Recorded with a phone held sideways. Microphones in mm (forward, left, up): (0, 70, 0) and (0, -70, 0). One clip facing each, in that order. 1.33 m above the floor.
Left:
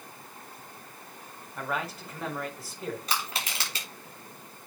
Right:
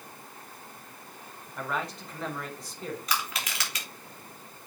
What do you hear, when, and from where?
1.6 s a man speaking: 5° left (ahead or behind), 4.5 m
3.1 s crushing: 30° left (ahead or behind), 4.5 m